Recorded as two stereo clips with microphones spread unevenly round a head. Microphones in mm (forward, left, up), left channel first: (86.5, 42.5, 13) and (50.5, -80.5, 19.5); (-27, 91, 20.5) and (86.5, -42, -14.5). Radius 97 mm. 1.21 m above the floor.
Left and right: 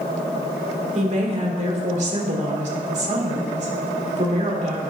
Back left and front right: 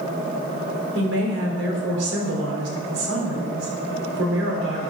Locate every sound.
0.9 s a woman speaking: 80° right, 3.5 m